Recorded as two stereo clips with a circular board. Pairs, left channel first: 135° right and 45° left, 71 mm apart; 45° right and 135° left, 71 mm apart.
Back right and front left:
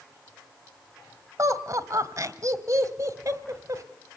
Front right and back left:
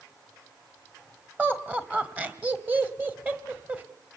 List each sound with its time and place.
1.4 s laughter: 75° left, 1.5 m